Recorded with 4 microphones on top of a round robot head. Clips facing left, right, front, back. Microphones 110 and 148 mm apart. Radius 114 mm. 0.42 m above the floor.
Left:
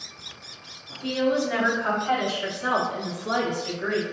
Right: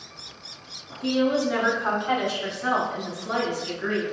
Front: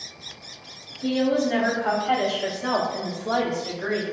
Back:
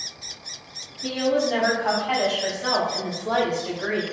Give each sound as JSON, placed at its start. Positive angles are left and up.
{"t": 1.0, "sound": "a woman speaking", "azimuth_deg": -25, "distance_m": 1.5}